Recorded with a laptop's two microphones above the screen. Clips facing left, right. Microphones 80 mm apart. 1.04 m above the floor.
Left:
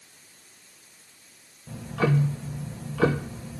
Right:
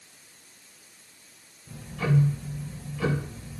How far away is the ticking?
About 0.9 m.